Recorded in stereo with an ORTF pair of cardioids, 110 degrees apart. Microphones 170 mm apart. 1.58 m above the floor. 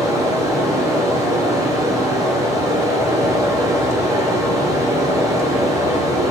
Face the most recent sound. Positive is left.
turn(degrees=-20)